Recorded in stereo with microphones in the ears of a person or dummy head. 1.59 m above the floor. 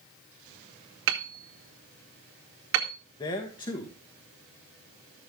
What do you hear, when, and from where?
1.1 s hammering: 70° right (ahead or behind), 2 m
3.2 s a man speaking: 20° left (ahead or behind), 1.5 m